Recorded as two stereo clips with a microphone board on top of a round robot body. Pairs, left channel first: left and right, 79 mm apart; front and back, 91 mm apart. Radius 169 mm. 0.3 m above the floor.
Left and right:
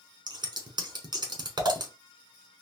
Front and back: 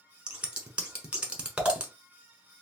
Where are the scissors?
100° right, 1.1 m.